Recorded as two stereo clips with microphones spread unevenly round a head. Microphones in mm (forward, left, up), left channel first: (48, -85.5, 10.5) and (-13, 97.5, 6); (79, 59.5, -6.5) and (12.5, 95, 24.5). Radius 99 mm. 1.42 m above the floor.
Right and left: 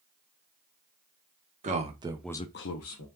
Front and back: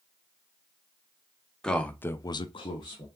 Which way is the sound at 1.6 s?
55° left.